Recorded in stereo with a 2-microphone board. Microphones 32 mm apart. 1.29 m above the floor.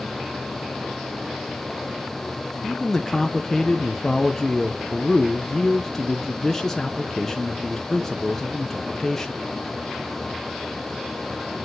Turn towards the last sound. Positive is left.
turn(degrees=10)  # may be behind; listen again after turning